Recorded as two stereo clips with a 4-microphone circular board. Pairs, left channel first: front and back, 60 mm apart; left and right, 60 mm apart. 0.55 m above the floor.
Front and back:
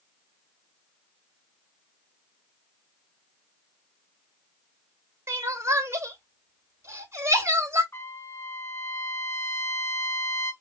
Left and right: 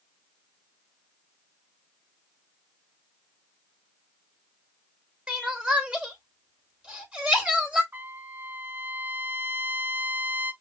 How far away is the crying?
About 2 m.